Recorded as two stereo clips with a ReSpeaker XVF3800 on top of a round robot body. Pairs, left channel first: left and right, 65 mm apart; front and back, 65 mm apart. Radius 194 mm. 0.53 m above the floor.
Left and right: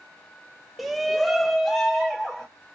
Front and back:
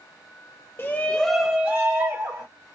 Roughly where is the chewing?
I don't hear chewing.